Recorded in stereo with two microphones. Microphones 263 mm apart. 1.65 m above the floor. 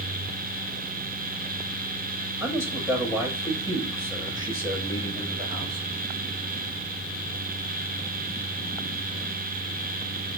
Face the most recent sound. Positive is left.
turn(degrees=-15)  # may be behind; listen again after turning